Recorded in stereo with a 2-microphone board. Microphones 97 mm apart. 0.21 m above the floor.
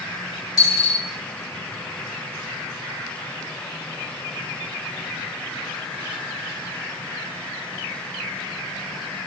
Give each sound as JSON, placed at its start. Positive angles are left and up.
{"t": 0.6, "sound": "a dropped coin", "side_deg": 40, "distance_m": 1.3}